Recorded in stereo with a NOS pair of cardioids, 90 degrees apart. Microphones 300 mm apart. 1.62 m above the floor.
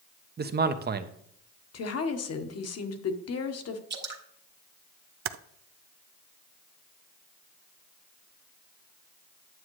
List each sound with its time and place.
0.4 s a man speaking: 35° right, 1.0 m
1.7 s a woman speaking: 55° left, 1.4 m
3.9 s dripping: 35° right, 1.5 m
5.2 s typing on a keyboard: 50° right, 0.6 m